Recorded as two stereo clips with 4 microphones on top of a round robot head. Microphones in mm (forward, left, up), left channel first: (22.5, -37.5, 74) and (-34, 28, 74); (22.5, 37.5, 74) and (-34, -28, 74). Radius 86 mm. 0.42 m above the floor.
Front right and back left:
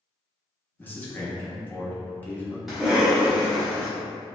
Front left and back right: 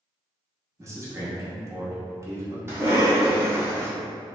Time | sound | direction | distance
0.8 | a man speaking | 105° right | 1.0 m
2.7 | a cough | 150° right | 1.3 m